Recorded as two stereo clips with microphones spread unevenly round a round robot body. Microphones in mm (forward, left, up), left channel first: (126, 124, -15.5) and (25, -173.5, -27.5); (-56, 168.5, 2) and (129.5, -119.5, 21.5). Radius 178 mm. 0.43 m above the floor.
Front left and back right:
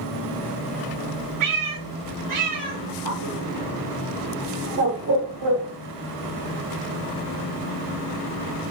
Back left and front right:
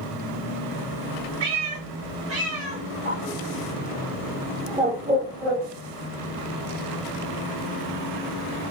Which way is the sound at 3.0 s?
125° right.